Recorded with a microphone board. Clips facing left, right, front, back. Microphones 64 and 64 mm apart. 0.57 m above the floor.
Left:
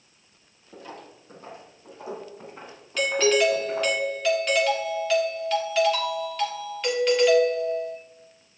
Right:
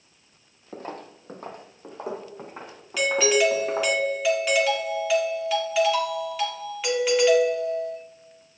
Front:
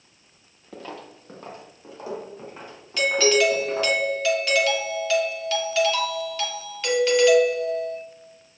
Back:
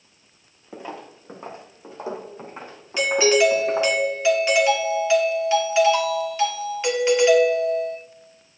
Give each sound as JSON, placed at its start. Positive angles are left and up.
{"t": 0.7, "sound": "footsteps", "azimuth_deg": -110, "distance_m": 0.8}
{"t": 3.0, "sound": "a doorbell", "azimuth_deg": -170, "distance_m": 1.6}